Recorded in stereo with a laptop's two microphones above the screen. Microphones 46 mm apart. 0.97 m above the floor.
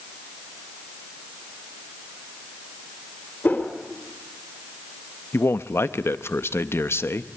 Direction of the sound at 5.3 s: 65° left (ahead or behind).